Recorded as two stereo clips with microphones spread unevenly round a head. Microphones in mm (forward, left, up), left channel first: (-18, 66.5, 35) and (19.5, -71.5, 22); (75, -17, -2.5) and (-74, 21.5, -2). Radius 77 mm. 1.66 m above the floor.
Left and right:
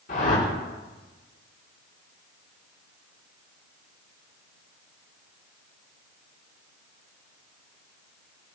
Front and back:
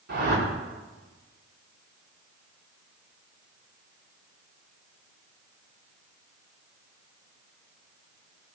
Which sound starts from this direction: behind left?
A whoosh, at 0.1 s.